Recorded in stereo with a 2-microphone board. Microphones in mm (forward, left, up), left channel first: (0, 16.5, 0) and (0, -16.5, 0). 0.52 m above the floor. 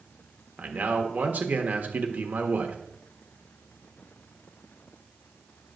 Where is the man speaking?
50° right (ahead or behind), 1.3 m.